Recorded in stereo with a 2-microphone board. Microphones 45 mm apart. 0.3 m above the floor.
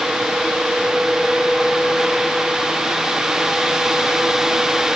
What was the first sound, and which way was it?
Only background noise.